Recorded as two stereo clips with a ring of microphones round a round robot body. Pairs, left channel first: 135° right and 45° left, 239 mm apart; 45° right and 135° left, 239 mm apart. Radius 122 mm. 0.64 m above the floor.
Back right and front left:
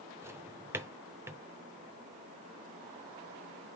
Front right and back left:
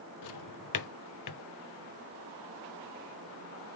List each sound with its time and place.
0.2 s a drawer: 35° right, 0.6 m